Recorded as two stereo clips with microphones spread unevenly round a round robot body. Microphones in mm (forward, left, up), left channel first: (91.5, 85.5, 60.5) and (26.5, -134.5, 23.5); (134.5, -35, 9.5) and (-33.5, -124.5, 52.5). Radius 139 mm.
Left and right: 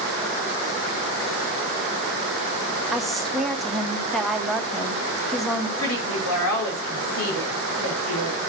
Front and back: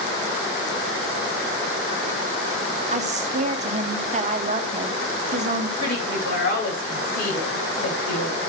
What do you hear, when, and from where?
2.9 s a woman speaking: 175° right, 1.4 m
5.8 s a woman speaking: 70° left, 5.5 m